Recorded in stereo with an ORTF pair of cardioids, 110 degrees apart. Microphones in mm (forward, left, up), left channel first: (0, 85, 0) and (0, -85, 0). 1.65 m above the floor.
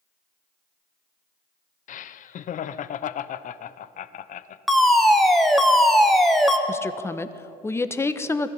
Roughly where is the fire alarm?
Ahead.